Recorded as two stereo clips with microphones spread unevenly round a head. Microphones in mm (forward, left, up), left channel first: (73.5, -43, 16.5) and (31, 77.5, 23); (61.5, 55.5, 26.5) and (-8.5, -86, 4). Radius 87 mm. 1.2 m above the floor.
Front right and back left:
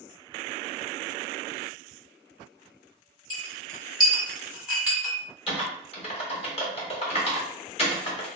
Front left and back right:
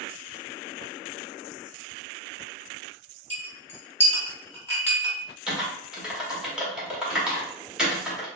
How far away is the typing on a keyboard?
About 1.3 m.